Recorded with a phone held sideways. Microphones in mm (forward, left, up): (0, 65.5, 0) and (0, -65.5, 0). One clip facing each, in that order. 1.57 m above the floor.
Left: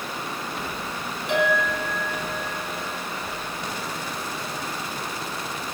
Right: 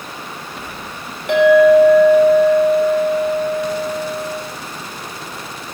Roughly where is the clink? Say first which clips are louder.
Right 15 dB; right.